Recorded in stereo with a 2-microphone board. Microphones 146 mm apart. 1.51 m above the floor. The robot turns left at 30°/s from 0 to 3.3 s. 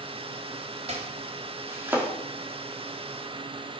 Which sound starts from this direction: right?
Chopping, at 0.9 s.